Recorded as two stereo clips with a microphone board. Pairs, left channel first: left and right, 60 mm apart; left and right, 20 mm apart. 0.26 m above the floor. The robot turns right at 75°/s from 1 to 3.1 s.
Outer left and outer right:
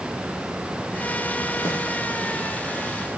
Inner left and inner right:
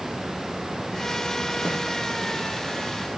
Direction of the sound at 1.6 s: 85° left.